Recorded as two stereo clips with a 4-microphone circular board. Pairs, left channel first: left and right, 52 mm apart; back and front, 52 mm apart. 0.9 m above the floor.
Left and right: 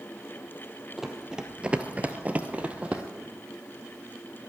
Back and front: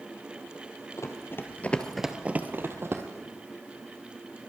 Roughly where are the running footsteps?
Behind.